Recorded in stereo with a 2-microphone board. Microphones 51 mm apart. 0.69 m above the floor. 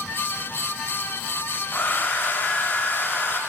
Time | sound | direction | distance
1.7 | a hair dryer | 40° left (ahead or behind) | 0.5 m